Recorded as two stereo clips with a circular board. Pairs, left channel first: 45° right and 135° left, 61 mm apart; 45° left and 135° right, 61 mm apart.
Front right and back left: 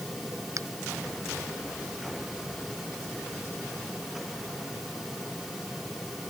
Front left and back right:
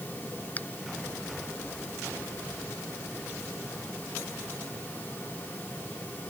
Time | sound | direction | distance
0.6 | a finger snap | 110° left | ?